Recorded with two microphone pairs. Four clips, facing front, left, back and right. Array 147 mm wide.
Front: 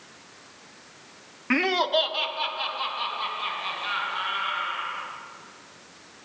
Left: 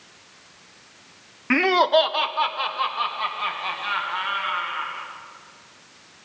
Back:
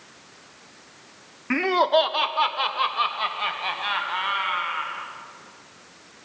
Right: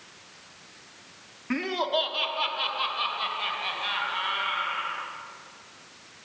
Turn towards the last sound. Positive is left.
turn(degrees=175)